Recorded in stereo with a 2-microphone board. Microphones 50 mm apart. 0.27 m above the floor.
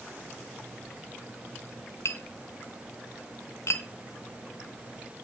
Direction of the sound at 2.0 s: 60° left (ahead or behind).